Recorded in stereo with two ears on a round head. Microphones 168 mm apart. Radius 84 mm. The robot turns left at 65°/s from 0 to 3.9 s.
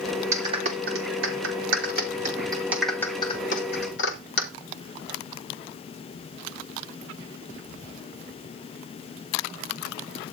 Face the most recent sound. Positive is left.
turn(degrees=65)  # may be behind; listen again after turning